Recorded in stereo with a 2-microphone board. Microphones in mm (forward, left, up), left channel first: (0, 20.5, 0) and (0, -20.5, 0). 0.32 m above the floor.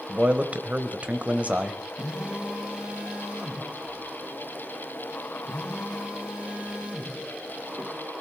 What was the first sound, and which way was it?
A man speaking, 35° right (ahead or behind).